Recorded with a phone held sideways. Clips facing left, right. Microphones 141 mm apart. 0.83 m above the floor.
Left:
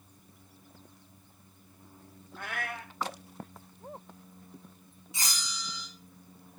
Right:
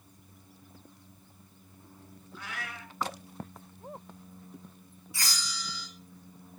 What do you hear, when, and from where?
2.4 s a cat meowing: 50° left (ahead or behind), 2 m
5.1 s a bell: 20° left (ahead or behind), 3.5 m